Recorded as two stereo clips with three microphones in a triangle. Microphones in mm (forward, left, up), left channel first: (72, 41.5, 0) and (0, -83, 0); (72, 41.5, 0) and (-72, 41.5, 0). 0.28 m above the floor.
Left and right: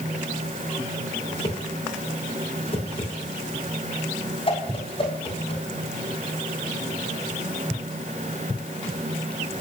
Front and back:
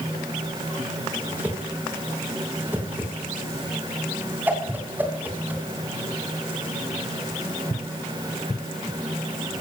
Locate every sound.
1.3 s a whoosh: 105° left, 2.5 m